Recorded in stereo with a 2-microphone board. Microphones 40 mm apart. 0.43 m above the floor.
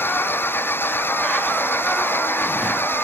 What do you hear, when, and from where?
0.0 s an engine running: 75° left (ahead or behind)